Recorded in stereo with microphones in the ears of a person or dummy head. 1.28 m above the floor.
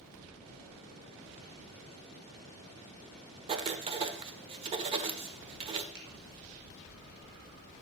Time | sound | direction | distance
3.5 | writing | 35° right (ahead or behind) | 1.4 m
5.9 | a finger snap | 60° right (ahead or behind) | 3 m